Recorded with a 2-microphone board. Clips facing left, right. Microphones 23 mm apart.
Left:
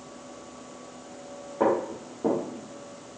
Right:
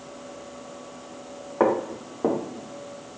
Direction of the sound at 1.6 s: 70° right (ahead or behind).